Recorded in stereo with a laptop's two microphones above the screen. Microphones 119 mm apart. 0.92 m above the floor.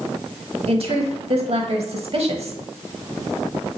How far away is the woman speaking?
About 1.0 m.